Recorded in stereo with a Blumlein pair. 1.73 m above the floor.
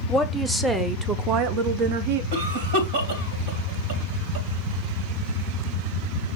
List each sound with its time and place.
0.1 s a woman speaking: straight ahead, 1.6 m; by 2.2 s 55° right, 1.2 m
2.3 s a cough: 55° right, 2.5 m